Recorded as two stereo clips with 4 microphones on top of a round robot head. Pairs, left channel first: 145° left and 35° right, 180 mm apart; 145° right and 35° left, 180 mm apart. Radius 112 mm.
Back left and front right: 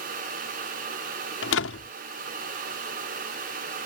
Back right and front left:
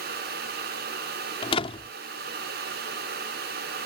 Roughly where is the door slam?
Behind left.